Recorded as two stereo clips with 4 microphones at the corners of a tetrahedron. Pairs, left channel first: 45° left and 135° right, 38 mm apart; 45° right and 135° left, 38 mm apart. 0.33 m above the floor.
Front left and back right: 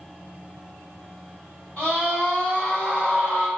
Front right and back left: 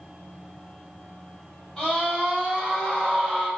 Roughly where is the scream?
Ahead.